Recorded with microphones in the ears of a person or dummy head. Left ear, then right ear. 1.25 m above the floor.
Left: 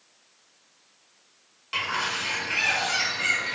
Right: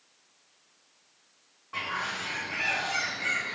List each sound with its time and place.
1.7 s a bird: 75° left (ahead or behind), 0.8 m